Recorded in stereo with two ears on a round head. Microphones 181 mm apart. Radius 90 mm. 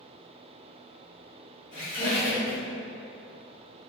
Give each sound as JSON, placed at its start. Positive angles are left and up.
{"t": 1.7, "sound": "a squeak", "side_deg": 40, "distance_m": 1.3}